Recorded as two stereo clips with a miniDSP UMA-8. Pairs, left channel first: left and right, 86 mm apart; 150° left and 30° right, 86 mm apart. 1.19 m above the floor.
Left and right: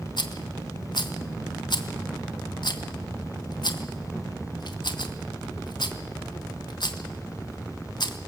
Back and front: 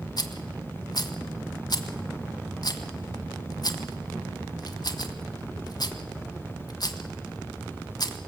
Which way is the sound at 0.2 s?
115° left.